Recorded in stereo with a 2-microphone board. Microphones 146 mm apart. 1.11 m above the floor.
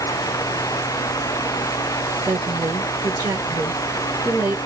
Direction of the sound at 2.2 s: 20° right (ahead or behind).